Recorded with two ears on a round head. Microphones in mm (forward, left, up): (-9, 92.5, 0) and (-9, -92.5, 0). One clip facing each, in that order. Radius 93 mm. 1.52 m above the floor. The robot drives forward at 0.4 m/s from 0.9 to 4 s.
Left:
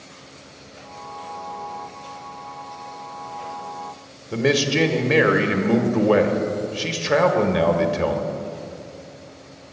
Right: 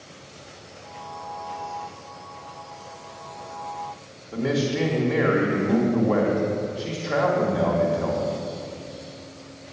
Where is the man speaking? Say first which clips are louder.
Left 4 dB; 80° left, 1.7 m.